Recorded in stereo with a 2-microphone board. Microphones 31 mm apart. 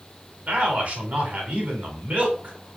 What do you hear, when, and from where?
0.5 s a man speaking: 55° right (ahead or behind), 1.8 m